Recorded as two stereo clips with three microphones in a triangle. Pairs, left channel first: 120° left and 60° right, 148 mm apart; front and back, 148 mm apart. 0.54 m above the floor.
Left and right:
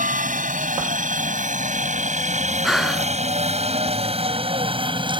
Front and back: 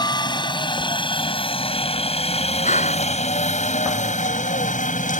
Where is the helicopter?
55° right; by 5.2 s 10° right.